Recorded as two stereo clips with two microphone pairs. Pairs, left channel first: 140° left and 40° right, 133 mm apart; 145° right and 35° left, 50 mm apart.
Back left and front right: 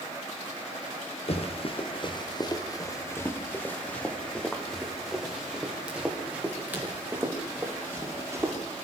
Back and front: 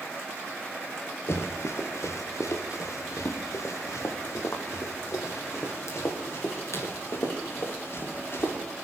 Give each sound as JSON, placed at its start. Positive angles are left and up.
{"t": 1.3, "sound": "running footsteps", "azimuth_deg": 180, "distance_m": 3.5}